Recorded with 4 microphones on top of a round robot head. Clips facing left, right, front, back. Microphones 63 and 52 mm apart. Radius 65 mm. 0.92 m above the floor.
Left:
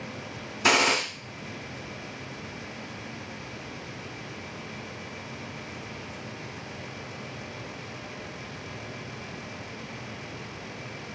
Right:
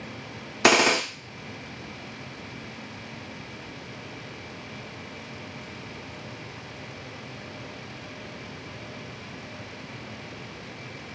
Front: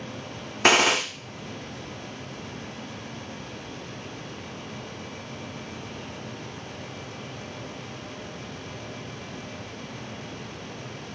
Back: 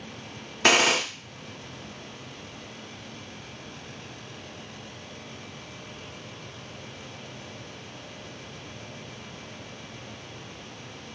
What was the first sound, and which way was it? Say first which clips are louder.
A gunshot: right 3 dB, front 1 dB; 70° right.